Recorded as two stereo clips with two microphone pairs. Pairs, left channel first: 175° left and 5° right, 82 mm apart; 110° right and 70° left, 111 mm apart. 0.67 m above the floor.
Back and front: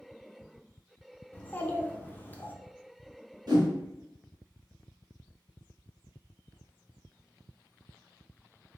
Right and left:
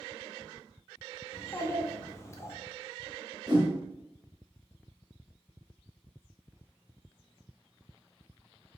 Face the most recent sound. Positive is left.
turn(degrees=25)